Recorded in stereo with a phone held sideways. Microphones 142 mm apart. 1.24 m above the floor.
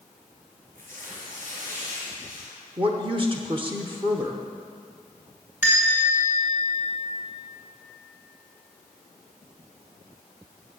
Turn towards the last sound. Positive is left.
turn(degrees=-15)  # may be behind; listen again after turning